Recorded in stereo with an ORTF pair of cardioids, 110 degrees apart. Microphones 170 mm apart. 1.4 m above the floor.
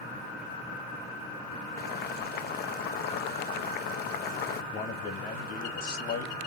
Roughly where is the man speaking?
Ahead left.